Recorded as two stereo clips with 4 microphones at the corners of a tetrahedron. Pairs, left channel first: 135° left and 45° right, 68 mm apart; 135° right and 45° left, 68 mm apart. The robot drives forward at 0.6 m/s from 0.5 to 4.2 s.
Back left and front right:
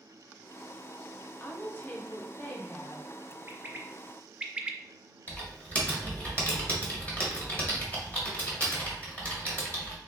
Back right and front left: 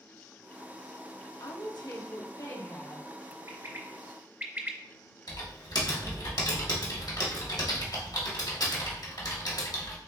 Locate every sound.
1.4 s a woman speaking: 155° right, 1.0 m; by 3.1 s 165° right, 1.9 m
3.5 s a bird: 5° left, 0.8 m; by 4.8 s 20° left, 0.6 m
5.3 s typing on a keyboard: 155° right, 1.3 m